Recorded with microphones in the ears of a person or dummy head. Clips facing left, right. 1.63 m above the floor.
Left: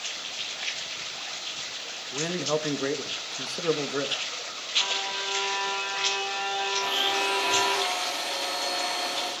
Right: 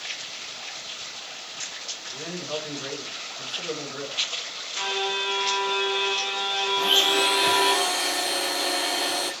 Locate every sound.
2.1 s a man speaking: 60° left (ahead or behind), 1.5 m
4.8 s a violin: 45° right (ahead or behind), 2 m
6.8 s a blender: 80° right, 3 m